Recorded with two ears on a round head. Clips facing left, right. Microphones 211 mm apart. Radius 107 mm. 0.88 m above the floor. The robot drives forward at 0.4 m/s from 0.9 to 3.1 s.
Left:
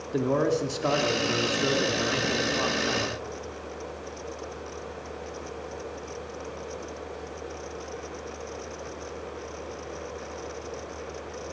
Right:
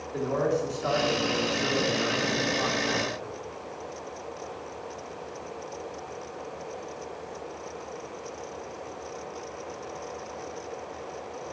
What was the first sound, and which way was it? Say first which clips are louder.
A man speaking: left 2 dB; 55° left (ahead or behind).